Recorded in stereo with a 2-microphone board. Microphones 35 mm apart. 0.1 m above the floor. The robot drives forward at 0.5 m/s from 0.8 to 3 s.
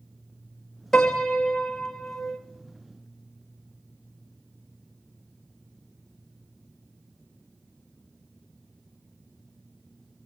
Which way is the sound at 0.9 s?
10° left (ahead or behind).